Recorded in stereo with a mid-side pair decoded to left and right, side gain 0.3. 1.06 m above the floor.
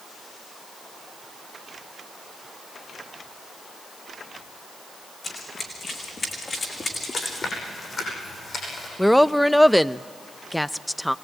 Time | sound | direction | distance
5.2 | running footsteps | 65° left | 5 m
7.1 | chewing | 60° left | 10 m
9.0 | a woman speaking | 5° left | 0.5 m